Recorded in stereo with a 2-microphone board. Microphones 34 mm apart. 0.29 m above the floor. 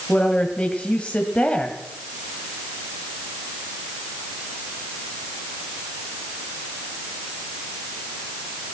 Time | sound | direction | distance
0.1 | a woman speaking | 35° left (ahead or behind) | 1.7 m